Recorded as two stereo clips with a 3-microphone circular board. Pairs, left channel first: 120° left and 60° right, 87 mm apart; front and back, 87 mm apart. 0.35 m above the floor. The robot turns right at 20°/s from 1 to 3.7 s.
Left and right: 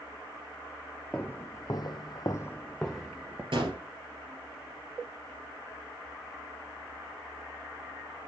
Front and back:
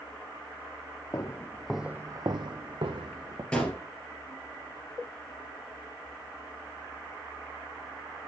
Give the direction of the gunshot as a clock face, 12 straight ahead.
3 o'clock.